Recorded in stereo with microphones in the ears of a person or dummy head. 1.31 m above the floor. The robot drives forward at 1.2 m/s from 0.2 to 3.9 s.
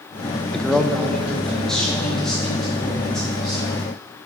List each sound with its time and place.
0.5 s a man speaking: 5° left (ahead or behind), 0.5 m; by 3.7 s centre (ahead or behind), 4.5 m